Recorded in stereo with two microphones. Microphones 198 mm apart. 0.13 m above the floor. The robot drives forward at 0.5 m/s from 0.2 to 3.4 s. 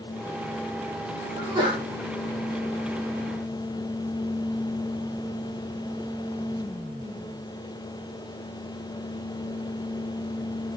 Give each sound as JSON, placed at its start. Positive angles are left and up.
{"t": 1.4, "sound": "a sneeze", "side_deg": -20, "distance_m": 5.5}